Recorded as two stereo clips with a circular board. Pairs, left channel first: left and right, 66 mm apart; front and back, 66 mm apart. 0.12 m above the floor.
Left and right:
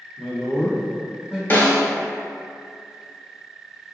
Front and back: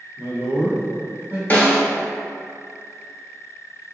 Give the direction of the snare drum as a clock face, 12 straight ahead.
10 o'clock.